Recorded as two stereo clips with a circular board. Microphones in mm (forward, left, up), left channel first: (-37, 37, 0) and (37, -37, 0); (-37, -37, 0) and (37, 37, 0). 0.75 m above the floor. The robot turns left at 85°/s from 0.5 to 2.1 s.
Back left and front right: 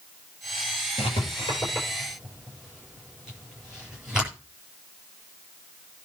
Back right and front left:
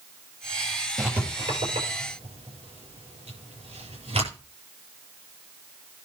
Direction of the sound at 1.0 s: 135° left.